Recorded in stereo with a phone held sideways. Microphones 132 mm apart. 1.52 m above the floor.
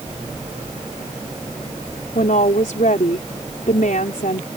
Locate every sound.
2.1 s a woman speaking: 85° left